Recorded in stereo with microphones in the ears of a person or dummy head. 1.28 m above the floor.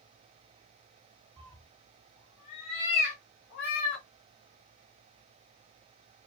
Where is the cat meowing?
5° right (ahead or behind), 1.1 m; by 4.0 s 60° left (ahead or behind), 1.7 m.